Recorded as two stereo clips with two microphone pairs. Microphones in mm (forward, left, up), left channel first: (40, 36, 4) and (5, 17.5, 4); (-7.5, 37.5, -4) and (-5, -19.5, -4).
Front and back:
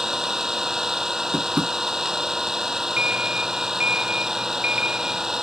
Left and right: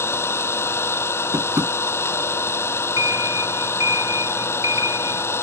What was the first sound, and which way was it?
An engine running, 130° left.